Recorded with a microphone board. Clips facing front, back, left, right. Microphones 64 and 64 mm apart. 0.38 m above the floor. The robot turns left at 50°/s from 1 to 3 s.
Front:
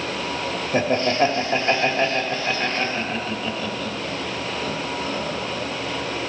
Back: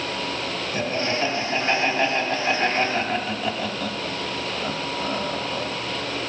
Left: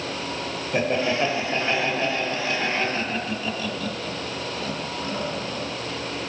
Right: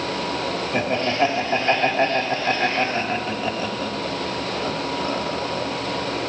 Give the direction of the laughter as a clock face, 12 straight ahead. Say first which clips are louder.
Front 6 dB, even; 12 o'clock.